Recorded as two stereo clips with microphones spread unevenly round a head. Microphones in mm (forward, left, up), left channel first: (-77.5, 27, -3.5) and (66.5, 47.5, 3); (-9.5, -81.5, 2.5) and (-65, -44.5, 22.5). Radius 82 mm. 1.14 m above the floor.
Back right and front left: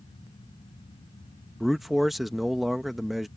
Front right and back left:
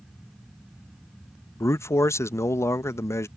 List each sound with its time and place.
1.6 s a man speaking: 80° right